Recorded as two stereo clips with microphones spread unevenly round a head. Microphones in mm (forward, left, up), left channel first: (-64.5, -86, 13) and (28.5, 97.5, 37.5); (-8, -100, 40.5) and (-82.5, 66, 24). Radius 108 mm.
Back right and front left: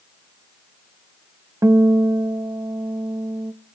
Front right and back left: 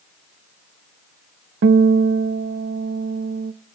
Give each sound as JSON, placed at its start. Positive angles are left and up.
{"t": 1.6, "sound": "a guitar", "azimuth_deg": 135, "distance_m": 0.5}